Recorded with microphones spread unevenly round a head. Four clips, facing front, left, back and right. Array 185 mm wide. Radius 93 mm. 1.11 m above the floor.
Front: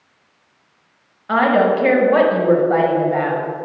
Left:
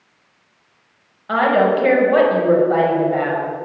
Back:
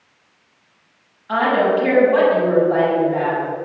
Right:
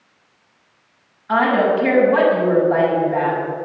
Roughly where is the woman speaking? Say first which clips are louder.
Left 1 dB, front 2 dB; ahead left.